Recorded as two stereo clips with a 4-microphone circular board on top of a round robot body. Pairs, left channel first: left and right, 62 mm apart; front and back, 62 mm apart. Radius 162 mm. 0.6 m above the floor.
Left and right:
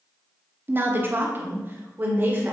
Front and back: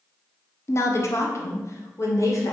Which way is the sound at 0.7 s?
40° right.